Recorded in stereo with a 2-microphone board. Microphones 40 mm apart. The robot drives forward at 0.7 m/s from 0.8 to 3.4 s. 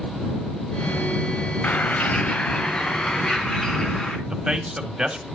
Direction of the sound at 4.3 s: 20° right (ahead or behind).